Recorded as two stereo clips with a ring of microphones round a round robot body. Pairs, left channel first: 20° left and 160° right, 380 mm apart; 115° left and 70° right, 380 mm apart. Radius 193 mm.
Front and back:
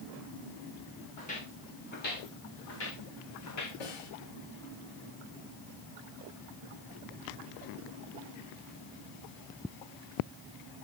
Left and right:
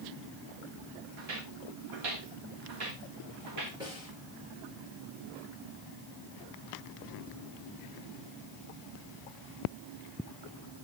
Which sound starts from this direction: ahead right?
Footsteps, at 1.2 s.